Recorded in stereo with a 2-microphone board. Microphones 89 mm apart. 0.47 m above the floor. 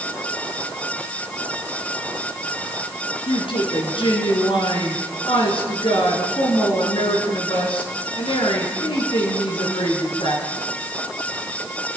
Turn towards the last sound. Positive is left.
turn(degrees=75)  # may be behind; listen again after turning